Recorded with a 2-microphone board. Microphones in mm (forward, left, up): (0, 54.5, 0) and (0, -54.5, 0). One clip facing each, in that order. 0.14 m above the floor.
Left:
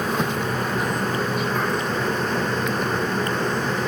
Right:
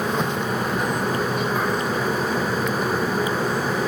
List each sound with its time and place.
Only background noise.